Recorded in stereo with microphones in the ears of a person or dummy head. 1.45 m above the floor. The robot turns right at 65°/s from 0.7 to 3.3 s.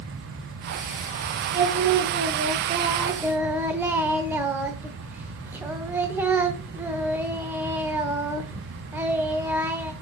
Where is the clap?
No clap in this recording.